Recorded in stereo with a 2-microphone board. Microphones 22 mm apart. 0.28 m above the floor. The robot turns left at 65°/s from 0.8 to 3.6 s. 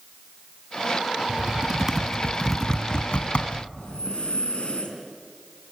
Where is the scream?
I don't hear a scream.